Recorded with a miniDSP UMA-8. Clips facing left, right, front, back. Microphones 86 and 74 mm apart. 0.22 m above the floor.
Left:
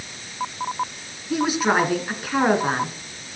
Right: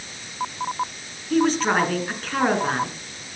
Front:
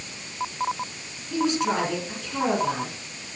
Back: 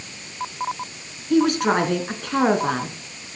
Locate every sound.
1.3 s a woman speaking: 170° left, 3 m